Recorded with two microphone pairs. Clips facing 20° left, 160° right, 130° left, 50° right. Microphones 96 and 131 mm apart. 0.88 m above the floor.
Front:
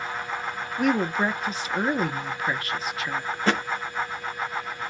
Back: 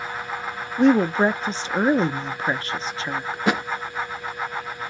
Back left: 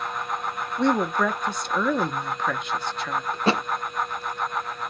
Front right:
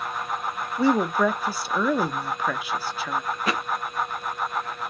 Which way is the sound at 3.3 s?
130° left.